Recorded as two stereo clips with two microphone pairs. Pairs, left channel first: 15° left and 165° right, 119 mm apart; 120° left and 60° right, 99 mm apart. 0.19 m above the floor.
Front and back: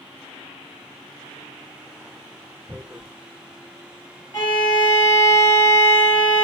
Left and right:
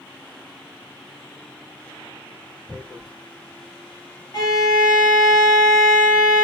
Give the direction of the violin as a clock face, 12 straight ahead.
9 o'clock.